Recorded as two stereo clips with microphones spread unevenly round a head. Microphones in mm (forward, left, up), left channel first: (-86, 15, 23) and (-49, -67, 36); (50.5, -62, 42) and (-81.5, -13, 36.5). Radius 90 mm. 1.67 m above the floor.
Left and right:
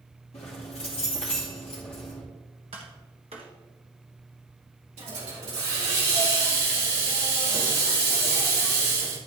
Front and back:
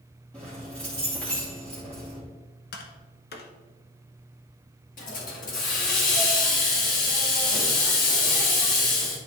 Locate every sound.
0.3 s keys jangling: 60° left, 2.5 m
2.7 s tapping: 15° right, 1.1 m
5.0 s a hiss: 40° right, 2.5 m